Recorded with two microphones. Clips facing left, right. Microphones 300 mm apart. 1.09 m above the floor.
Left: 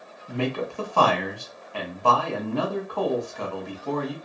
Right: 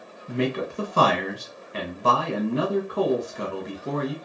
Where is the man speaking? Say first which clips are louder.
Right 2 dB; 20° right (ahead or behind), 0.8 m.